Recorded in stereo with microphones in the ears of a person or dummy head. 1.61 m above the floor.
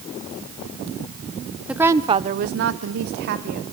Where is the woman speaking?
Centre (ahead or behind), 0.8 m; by 3.6 s 50° right (ahead or behind), 1.2 m.